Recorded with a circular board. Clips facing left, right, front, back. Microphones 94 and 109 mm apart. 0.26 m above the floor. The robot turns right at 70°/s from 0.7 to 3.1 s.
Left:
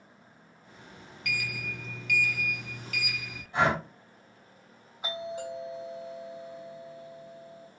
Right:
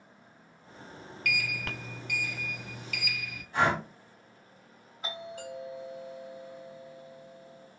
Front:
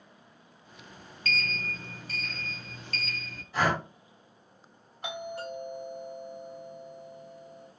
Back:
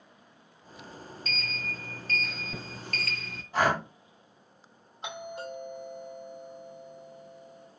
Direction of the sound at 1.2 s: 20° left.